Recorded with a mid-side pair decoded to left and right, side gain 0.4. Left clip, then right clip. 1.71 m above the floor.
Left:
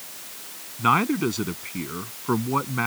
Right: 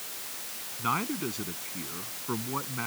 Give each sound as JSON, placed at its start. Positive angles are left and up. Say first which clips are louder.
{"t": 0.8, "sound": "a man speaking", "louder": "left 10 dB", "azimuth_deg": 65}